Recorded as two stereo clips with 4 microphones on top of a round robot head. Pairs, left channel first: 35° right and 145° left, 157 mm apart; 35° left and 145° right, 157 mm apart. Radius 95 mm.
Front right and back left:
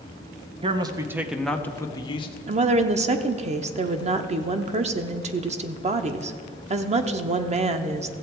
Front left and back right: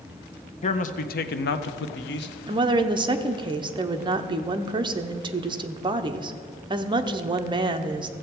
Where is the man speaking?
85° left, 0.7 m; by 2.4 s 20° left, 0.9 m.